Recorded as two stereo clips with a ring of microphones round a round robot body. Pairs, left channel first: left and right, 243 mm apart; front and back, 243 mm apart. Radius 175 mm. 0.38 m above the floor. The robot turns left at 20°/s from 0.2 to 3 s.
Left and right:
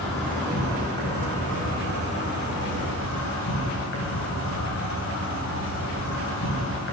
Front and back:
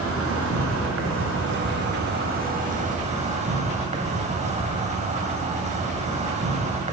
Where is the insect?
Straight behind, 3.5 m; by 6.9 s 120° left, 3.5 m.